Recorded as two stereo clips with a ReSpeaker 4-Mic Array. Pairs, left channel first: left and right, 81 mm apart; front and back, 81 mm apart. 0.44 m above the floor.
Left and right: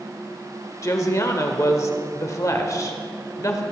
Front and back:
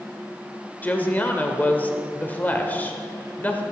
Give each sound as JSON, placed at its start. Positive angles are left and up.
{"t": 0.8, "sound": "a woman speaking", "azimuth_deg": 60, "distance_m": 1.2}